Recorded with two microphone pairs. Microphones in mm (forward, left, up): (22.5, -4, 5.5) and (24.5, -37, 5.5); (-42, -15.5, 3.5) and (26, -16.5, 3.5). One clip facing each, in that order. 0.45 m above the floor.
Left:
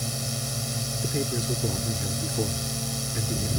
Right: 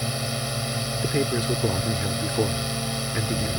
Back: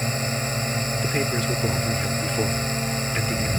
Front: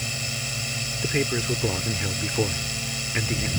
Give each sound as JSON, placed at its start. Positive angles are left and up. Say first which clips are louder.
{"t": 0.0, "sound": "a drone", "louder": "right 4 dB, back 7 dB", "azimuth_deg": -140}
{"t": 1.0, "sound": "a man speaking", "louder": "right 5 dB, front 2 dB", "azimuth_deg": -80}